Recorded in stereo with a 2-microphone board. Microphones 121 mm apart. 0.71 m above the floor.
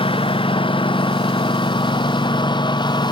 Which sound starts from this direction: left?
A lawn mower, at 0.0 s.